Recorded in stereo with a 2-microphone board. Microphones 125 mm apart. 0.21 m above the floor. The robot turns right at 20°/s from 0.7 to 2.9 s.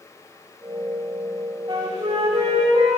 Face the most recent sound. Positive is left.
turn(degrees=-60)  # may be behind; listen again after turning